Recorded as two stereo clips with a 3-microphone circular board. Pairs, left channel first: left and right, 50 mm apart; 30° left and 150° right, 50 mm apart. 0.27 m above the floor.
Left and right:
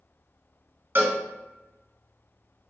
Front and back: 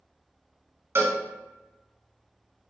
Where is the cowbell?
125° right, 1.2 m.